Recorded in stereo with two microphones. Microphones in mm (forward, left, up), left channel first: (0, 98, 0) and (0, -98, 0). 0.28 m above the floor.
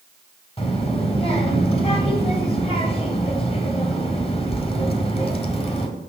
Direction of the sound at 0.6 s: 30° left (ahead or behind).